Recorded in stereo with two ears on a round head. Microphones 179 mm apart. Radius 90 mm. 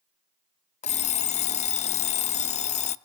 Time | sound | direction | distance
0.8 | an alarm clock | 35° left (ahead or behind) | 0.5 m